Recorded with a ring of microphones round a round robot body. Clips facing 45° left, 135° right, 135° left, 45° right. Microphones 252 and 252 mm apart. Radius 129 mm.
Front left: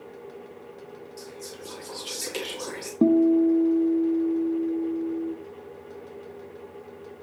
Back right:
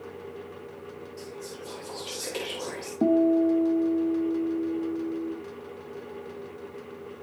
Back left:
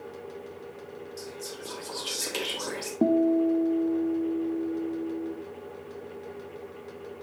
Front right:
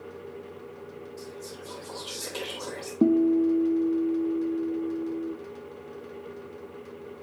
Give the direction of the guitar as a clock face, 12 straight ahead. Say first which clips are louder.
Front left 3 dB, front right 2 dB; 11 o'clock.